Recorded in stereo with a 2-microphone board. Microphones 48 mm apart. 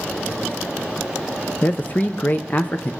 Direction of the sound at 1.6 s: 35° left (ahead or behind).